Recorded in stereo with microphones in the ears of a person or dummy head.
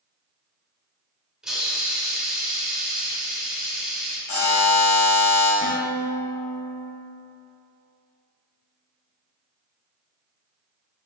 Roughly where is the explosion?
No explosion in this recording.